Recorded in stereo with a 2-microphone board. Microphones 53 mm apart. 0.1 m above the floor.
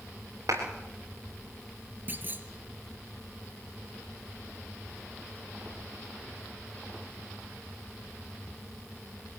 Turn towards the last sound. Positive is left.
turn(degrees=-35)  # may be behind; listen again after turning